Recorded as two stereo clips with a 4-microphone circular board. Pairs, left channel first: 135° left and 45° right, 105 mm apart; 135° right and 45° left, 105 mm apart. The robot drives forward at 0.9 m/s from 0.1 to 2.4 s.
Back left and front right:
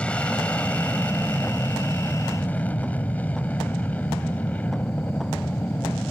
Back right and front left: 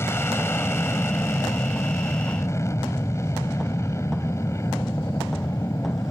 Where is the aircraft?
160° right; by 6.1 s 165° right.